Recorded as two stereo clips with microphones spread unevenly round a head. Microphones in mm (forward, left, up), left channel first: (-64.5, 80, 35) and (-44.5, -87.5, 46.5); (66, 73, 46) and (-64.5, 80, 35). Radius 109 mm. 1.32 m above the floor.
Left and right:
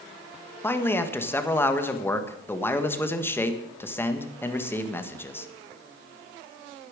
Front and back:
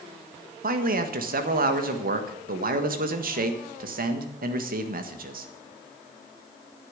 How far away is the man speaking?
About 1.6 m.